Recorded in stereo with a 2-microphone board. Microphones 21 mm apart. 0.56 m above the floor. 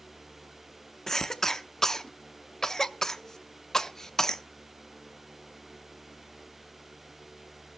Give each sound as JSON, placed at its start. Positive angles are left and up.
{"t": 1.1, "sound": "a cough", "side_deg": 20, "distance_m": 0.7}